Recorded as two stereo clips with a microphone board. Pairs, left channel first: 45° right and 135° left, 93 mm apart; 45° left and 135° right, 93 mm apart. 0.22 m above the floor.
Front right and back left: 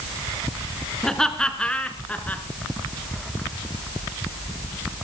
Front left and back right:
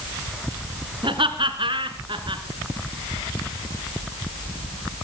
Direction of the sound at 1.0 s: 130° right.